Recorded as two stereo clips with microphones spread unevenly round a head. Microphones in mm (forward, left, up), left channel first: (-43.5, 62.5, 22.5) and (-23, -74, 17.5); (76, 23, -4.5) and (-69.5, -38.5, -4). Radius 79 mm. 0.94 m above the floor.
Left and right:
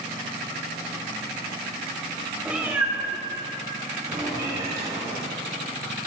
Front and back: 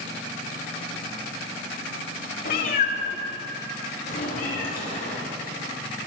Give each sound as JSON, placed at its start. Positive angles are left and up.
{"t": 2.5, "sound": "a cat meowing", "azimuth_deg": 0, "distance_m": 1.2}